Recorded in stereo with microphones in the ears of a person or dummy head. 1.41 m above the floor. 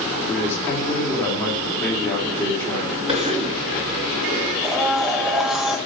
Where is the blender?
Centre (ahead or behind), 1.5 m.